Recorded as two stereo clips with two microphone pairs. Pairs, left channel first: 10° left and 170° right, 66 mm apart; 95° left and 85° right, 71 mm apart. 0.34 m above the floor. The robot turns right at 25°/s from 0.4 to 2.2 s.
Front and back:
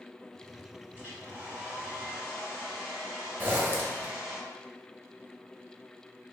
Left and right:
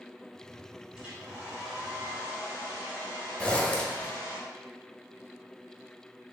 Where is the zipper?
160° left, 0.7 m.